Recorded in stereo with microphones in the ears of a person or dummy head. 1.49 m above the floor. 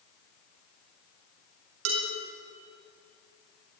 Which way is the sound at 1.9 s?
80° right.